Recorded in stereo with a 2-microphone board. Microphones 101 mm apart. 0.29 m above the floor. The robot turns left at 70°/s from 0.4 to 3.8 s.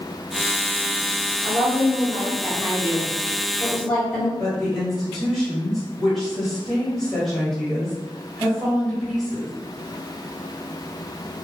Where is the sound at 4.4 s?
5° left (ahead or behind), 1.1 m.